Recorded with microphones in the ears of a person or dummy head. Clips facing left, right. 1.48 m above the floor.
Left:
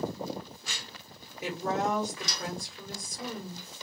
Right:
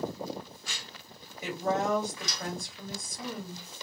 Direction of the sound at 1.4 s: 15° left (ahead or behind).